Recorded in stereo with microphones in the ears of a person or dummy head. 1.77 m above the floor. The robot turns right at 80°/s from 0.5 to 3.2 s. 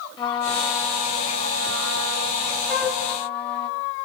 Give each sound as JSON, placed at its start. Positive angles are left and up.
{"t": 0.2, "sound": "a trumpet", "azimuth_deg": 150, "distance_m": 2.5}
{"t": 2.7, "sound": "a flute", "side_deg": 10, "distance_m": 5.5}